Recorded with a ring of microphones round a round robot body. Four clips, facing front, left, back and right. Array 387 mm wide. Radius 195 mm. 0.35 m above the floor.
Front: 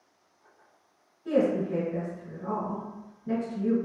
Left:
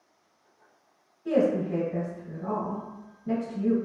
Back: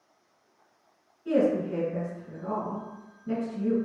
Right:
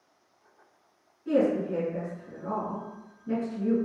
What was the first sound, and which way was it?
A woman speaking, 80° left.